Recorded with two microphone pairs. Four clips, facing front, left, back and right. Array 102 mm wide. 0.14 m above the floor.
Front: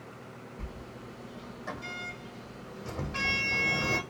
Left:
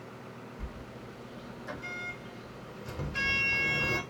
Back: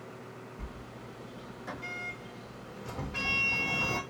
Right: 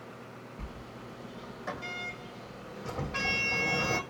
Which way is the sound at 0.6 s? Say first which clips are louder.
Even, front 1 dB; 80° right.